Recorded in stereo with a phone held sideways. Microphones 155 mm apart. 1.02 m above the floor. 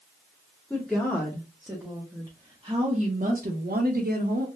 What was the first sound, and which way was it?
A woman speaking, 5° left (ahead or behind).